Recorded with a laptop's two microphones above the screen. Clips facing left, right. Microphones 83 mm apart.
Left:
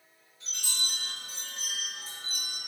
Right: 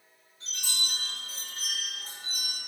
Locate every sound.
0.4 s a chime: 50° right (ahead or behind), 1.7 m